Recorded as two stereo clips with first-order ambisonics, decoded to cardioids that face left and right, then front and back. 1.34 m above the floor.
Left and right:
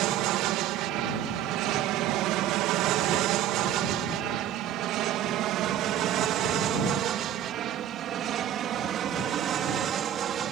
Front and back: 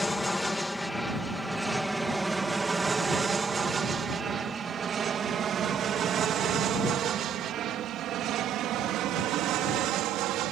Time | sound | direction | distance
0.0 | an aircraft | 80° right | ?